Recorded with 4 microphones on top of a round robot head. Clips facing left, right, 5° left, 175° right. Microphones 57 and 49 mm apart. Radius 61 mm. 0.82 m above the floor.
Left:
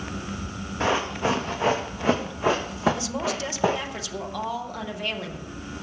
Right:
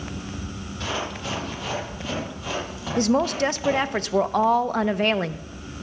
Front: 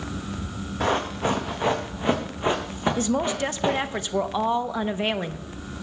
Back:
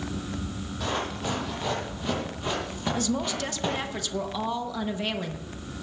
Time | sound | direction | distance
0.8 | running footsteps | 35° left | 3.5 m
3.0 | a woman speaking | 55° right | 0.8 m